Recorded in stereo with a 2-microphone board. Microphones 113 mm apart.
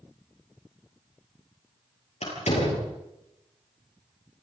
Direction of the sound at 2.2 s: 80° left.